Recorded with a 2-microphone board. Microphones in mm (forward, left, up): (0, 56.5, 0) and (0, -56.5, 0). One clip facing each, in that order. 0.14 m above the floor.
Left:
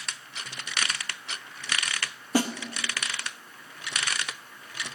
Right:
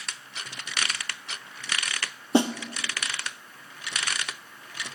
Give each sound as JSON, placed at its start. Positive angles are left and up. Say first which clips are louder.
{"t": 2.3, "sound": "a snare drum", "louder": "right 4 dB", "side_deg": -25, "distance_m": 0.7}